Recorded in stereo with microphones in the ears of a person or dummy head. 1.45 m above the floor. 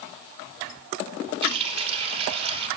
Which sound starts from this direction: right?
A running tap, at 1.4 s.